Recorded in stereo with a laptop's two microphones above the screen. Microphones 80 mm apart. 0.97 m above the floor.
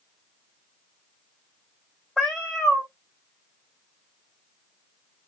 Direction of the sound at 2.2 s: 10° left (ahead or behind).